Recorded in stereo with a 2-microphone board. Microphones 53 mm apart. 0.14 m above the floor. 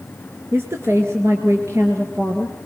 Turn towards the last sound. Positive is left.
turn(degrees=-60)  # may be behind; listen again after turning